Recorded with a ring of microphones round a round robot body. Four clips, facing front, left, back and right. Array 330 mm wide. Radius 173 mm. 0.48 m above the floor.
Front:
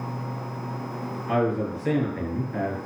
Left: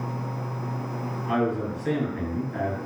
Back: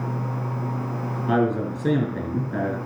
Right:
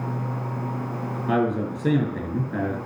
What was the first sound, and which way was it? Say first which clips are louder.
A man speaking: right 2 dB, back 2 dB; 135° right.